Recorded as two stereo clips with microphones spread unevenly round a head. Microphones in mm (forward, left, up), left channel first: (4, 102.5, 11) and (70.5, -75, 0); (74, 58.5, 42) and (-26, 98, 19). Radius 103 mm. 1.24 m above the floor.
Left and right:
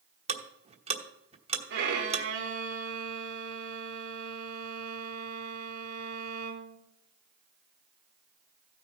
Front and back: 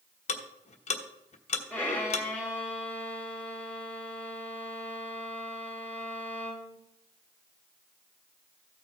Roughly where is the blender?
I don't hear a blender.